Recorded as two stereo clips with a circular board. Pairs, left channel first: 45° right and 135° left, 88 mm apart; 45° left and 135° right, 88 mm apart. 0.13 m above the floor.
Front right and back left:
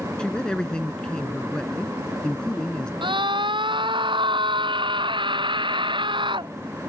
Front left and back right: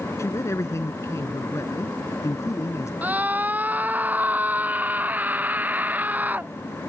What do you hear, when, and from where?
0.2 s a man speaking: 30° left
3.0 s a scream: 155° left